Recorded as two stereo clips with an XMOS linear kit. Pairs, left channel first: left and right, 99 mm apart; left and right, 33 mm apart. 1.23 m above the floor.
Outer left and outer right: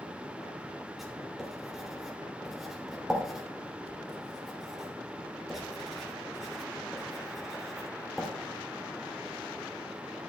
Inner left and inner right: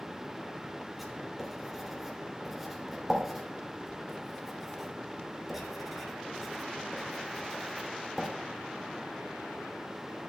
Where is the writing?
Centre (ahead or behind), 3 m.